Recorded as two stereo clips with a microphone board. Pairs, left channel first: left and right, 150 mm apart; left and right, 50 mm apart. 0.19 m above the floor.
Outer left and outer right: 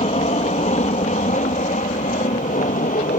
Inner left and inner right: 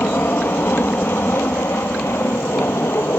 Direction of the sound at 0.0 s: 50° left (ahead or behind).